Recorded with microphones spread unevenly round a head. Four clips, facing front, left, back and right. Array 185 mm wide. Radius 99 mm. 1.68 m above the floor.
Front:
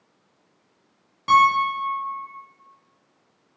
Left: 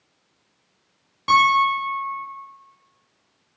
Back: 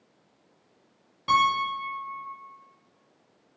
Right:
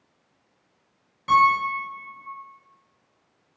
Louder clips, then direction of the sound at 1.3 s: Left 2 dB, front 6 dB; 25° left.